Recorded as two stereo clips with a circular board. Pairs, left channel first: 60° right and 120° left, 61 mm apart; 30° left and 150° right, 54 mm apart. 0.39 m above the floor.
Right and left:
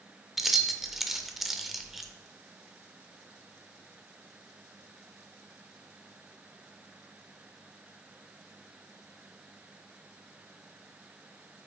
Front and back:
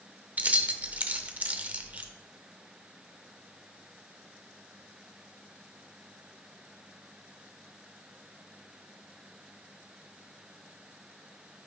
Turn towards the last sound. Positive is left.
turn(degrees=-155)